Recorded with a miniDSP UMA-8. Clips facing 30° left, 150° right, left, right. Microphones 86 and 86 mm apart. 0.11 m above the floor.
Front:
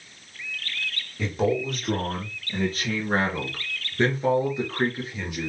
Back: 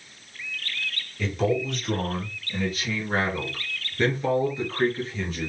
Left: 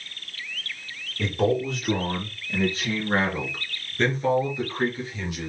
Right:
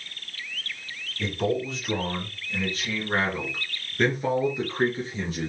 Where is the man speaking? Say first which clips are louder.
Even, left 3 dB; 80° left, 2.5 m; by 5.5 s 50° right, 2.5 m.